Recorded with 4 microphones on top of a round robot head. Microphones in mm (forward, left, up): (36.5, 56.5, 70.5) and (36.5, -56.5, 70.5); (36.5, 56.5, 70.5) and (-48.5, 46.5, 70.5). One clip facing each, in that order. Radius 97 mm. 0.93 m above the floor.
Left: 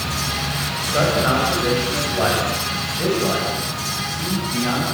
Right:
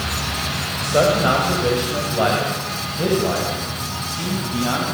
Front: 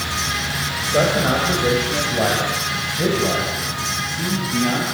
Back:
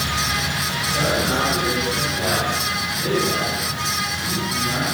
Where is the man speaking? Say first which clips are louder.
Right 3 dB, front 5 dB; 25° right, 6.5 m; by 4.8 s 15° right, 9 m.